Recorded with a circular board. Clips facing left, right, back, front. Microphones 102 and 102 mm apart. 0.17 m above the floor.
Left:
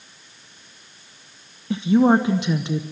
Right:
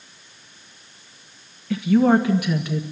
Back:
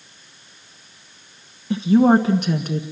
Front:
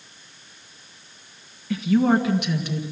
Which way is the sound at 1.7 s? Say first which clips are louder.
Even, back 5 dB; 135° left.